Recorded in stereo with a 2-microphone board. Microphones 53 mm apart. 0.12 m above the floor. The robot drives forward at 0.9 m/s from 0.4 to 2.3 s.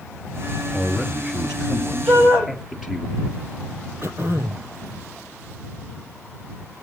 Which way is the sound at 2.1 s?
60° right (ahead or behind).